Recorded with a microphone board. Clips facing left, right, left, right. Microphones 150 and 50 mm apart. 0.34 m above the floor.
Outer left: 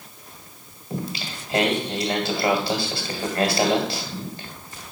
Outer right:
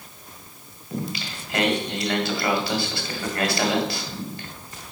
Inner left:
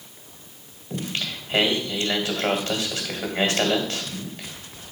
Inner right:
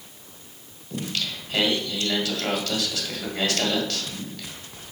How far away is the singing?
About 1.9 m.